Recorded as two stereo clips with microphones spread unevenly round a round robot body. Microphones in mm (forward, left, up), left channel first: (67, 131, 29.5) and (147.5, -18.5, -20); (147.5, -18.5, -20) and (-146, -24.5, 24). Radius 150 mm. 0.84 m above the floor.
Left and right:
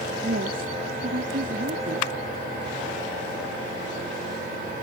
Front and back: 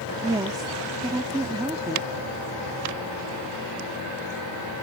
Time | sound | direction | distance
0.2 | a woman speaking | 100° right | ?